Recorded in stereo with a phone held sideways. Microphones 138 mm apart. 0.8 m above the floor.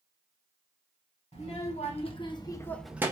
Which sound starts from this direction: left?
A child speaking, at 1.3 s.